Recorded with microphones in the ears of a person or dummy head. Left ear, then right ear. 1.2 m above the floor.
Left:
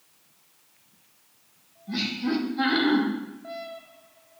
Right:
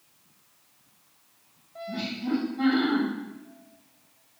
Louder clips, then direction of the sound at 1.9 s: Left 3 dB; 50° left (ahead or behind).